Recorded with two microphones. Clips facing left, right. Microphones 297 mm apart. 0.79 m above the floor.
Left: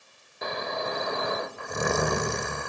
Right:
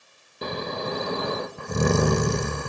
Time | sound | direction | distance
0.4 | snoring | 40° right (ahead or behind) | 0.7 m